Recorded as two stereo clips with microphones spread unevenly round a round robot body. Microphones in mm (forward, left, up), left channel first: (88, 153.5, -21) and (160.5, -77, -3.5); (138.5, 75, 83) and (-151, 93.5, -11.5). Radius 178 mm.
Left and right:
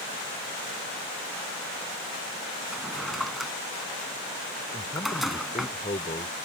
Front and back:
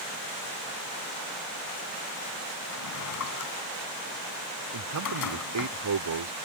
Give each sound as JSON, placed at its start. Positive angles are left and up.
{"t": 2.7, "sound": "a drawer", "azimuth_deg": 15}
{"t": 4.7, "sound": "a man speaking", "azimuth_deg": 180}